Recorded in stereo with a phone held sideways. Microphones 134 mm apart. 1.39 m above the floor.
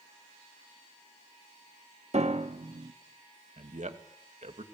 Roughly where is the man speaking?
Right.